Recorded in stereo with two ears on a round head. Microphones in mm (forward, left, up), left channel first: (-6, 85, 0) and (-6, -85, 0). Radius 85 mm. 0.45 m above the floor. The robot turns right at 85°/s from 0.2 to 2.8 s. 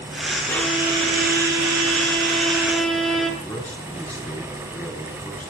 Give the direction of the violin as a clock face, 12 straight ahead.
7 o'clock.